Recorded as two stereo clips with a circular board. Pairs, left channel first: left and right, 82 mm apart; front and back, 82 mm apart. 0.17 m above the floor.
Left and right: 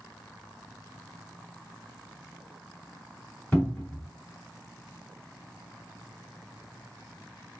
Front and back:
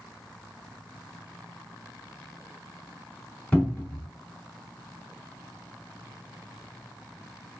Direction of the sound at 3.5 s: 45° left.